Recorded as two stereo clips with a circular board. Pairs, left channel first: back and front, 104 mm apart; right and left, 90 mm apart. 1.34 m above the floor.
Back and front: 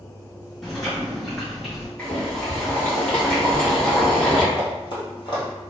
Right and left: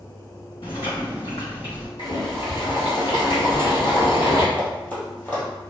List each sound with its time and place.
0.6 s chewing: 95° right, 1.9 m
2.0 s boiling: 105° right, 1.5 m
4.5 s running footsteps: 155° right, 1.9 m